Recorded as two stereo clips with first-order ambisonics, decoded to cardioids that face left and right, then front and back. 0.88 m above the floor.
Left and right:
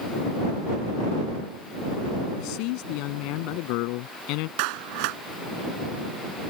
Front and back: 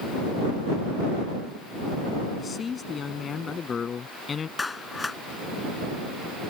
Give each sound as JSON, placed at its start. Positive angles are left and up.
{"t": 2.4, "sound": "a man speaking", "azimuth_deg": 70}
{"t": 4.6, "sound": "a clap", "azimuth_deg": -80}